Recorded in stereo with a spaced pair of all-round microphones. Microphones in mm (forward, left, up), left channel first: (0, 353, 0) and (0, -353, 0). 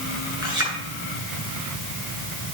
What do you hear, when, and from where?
0.4 s a clink: 20° right (ahead or behind), 8 m